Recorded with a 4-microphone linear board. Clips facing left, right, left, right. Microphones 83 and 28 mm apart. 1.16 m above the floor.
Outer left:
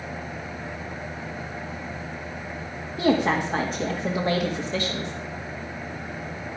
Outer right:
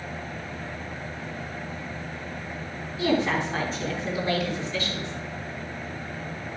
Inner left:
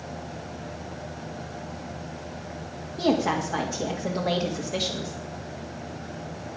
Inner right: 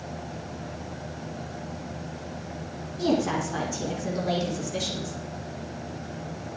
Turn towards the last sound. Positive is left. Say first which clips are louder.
# outer left 3 dB, inner left 1 dB
turn(degrees=55)  # may be behind; listen again after turning